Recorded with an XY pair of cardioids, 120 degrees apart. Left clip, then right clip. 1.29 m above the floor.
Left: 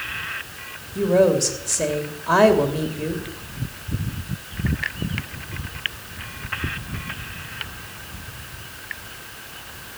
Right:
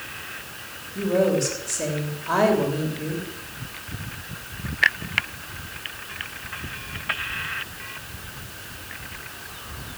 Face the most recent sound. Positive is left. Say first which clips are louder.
# left 4 dB
turn(degrees=30)